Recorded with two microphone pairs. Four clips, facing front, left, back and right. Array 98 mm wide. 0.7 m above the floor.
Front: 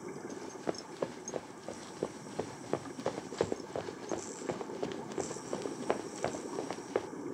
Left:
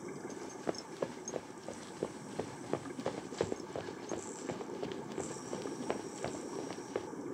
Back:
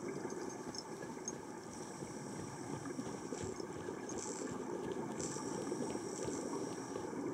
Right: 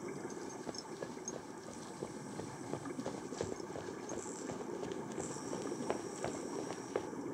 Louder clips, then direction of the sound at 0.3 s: Left 4 dB, front 5 dB; 55° left.